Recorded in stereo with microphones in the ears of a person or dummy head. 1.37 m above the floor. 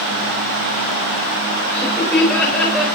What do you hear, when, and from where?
1.7 s laughter: 10° left (ahead or behind), 5 m; by 2.9 s centre (ahead or behind), 5.5 m